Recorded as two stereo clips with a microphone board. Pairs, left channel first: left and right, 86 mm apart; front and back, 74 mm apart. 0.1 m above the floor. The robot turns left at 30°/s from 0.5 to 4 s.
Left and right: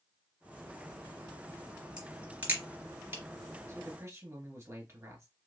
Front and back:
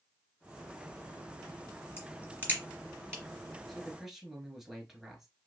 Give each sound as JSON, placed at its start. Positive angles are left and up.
{"t": 2.0, "sound": "a crack", "azimuth_deg": -20, "distance_m": 1.9}
{"t": 3.7, "sound": "a man speaking", "azimuth_deg": -85, "distance_m": 1.5}